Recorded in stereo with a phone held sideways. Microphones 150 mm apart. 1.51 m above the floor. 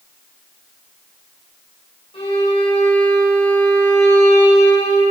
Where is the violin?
35° left (ahead or behind), 8 m.